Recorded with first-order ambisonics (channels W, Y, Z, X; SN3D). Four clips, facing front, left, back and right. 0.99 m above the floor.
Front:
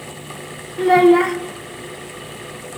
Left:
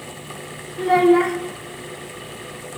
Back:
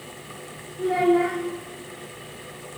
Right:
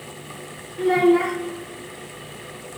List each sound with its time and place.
0.8 s a child speaking: 15° left, 1.0 m